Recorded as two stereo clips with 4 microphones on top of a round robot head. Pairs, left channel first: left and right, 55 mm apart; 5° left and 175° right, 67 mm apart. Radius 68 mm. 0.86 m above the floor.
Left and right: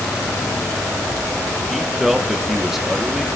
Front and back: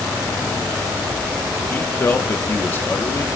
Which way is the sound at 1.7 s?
10° right.